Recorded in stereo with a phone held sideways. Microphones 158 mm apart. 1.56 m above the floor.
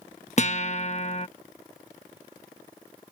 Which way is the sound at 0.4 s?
50° left (ahead or behind).